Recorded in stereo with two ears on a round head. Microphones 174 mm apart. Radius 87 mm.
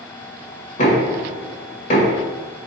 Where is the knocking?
40° left (ahead or behind), 1.8 m.